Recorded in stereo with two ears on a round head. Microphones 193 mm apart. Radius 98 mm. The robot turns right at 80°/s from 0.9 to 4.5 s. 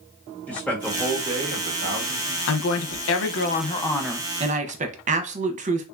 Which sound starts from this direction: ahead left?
A woman speaking, at 2.5 s.